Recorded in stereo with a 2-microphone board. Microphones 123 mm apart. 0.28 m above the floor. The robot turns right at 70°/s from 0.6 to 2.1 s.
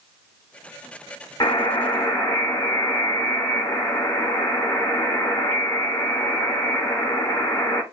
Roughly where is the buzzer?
Left.